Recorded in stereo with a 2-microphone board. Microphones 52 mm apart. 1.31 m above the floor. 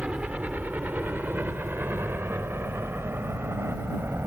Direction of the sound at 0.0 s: 25° right (ahead or behind).